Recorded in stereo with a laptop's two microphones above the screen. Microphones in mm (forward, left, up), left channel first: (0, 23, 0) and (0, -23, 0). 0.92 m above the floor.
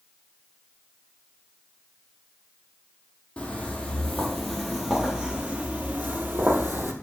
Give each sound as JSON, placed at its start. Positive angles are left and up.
{"t": 3.4, "sound": "footsteps", "side_deg": 20, "distance_m": 1.4}